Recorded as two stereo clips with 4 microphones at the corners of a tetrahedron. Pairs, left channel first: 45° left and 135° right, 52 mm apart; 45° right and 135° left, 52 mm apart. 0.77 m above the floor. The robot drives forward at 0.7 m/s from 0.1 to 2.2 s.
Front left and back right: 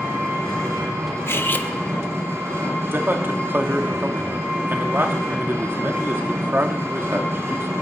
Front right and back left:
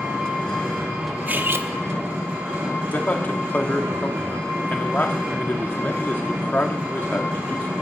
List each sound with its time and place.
0.0 s an engine running: 165° right, 6.5 m; by 7.8 s 170° right, 8 m
1.3 s cutlery clinking: 80° left, 0.8 m; by 1.7 s 105° left, 0.8 m
2.9 s a man speaking: 95° right, 1.6 m